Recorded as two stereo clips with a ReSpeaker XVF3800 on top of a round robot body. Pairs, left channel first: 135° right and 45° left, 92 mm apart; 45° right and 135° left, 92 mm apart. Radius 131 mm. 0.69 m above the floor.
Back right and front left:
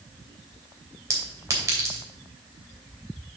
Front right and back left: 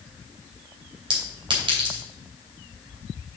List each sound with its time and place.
1.1 s a clink: 105° left, 2.5 m